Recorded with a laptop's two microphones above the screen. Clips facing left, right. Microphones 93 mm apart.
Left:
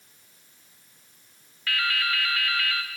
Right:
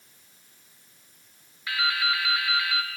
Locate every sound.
1.7 s dripping: 15° right (ahead or behind), 0.8 m